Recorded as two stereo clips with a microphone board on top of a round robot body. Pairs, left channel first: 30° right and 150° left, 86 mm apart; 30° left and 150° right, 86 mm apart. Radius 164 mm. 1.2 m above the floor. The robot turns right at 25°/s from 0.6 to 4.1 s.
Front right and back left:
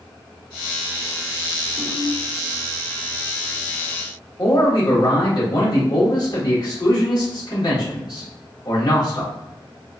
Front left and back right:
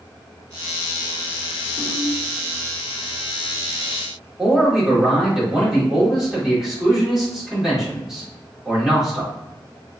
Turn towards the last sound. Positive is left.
turn(degrees=-65)